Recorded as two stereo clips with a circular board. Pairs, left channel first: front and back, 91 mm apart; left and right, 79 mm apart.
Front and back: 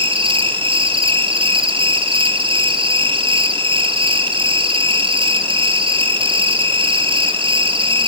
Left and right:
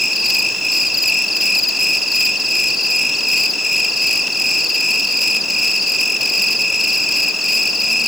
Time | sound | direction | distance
0.0 | an insect | straight behind | 2.5 m